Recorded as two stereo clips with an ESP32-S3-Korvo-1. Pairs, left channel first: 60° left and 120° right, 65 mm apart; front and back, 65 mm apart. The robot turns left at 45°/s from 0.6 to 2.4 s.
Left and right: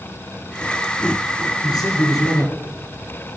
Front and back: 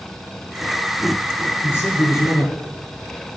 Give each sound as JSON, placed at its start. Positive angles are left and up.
{"t": 1.6, "sound": "a man speaking", "azimuth_deg": 60, "distance_m": 4.0}